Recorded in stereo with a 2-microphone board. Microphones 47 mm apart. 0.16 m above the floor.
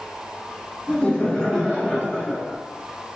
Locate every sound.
0.9 s laughter: 30° left (ahead or behind), 1.3 m; by 2.6 s 10° right (ahead or behind), 2 m